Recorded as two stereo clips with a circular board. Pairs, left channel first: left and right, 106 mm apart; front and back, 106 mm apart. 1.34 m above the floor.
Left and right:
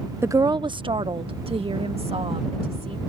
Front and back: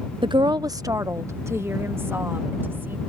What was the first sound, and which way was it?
A woman speaking, 150° right.